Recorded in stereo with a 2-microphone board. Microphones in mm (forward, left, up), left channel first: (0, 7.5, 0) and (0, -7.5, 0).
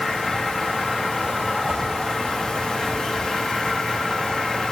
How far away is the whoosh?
About 8 m.